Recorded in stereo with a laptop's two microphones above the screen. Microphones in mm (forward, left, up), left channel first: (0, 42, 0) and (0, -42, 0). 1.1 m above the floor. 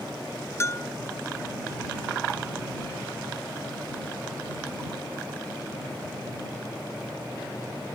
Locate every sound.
0.6 s a bell: 30° left (ahead or behind)